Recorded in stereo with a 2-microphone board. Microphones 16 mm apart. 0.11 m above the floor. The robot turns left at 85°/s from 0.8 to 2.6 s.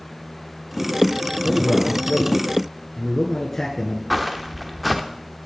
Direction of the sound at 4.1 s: 10° right (ahead or behind).